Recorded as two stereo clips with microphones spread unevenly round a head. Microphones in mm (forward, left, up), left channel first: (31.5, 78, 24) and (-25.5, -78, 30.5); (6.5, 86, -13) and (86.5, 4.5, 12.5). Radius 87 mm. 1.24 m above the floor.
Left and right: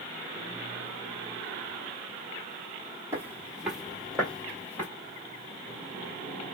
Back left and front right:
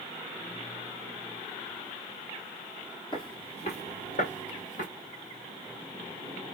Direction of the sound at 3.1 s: 175° right.